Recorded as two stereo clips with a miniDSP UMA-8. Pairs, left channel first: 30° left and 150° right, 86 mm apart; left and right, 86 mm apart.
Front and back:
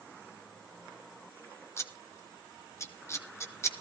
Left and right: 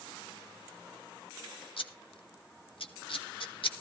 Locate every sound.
1.8 s scissors: 90° left, 1.4 m